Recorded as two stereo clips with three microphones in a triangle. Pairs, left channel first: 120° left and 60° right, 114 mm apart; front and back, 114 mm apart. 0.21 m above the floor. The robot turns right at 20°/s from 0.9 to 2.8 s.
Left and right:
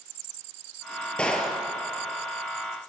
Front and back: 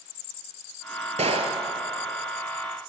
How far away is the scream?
No scream in this recording.